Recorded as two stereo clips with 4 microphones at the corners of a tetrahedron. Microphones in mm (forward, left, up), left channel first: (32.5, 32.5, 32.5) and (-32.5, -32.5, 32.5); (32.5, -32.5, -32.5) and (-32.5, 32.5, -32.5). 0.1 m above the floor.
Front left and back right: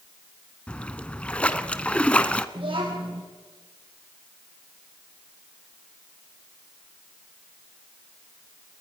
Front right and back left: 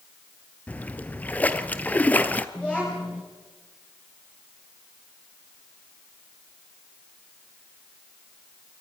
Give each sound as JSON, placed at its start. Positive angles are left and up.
{"t": 0.7, "sound": "a splash", "azimuth_deg": -10, "distance_m": 1.0}
{"t": 2.5, "sound": "a child speaking", "azimuth_deg": -120, "distance_m": 4.5}